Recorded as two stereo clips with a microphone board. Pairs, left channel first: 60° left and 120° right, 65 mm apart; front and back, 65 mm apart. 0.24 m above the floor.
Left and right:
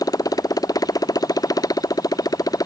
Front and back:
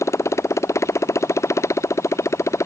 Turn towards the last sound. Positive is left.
turn(degrees=40)